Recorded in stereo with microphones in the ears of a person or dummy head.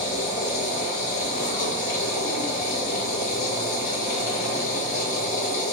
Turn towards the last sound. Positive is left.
turn(degrees=45)  # may be behind; listen again after turning